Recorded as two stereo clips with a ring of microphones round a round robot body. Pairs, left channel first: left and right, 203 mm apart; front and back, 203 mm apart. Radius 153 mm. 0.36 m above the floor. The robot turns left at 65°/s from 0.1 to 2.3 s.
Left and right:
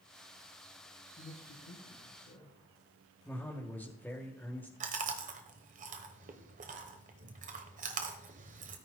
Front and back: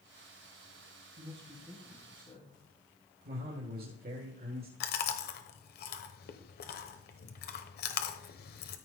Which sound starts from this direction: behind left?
A man speaking, at 1.2 s.